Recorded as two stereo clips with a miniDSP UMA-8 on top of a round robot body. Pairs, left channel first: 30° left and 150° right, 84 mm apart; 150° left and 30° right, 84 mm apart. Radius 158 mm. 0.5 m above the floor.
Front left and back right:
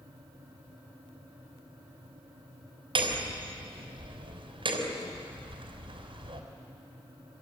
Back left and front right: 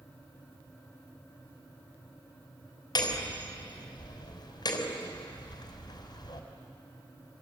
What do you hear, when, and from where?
3.0 s hammering: 170° right, 3.5 m